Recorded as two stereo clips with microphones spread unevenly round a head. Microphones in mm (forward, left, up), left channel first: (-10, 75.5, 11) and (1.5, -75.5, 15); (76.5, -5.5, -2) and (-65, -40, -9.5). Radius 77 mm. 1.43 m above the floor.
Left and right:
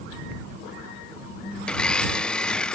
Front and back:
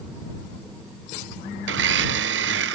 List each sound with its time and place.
1.7 s a blender: straight behind